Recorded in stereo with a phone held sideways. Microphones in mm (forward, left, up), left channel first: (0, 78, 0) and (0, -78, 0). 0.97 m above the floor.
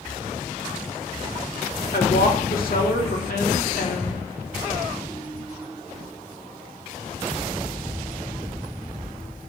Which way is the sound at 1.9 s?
70° left (ahead or behind).